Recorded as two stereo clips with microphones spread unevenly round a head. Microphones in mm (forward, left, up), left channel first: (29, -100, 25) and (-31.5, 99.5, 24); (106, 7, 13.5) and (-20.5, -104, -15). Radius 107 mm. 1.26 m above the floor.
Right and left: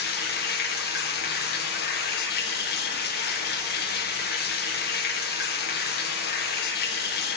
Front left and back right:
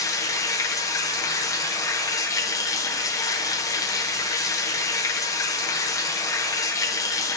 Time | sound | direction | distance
0.0 | running water | 25° right | 1.0 m